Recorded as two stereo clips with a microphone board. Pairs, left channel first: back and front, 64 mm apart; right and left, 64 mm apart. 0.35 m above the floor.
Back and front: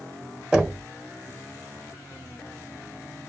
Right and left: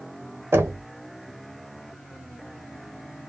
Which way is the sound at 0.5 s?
75° left.